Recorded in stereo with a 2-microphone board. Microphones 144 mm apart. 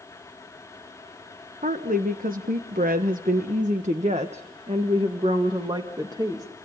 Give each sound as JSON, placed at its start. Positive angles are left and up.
{"t": 1.6, "sound": "a woman speaking", "side_deg": -70, "distance_m": 1.5}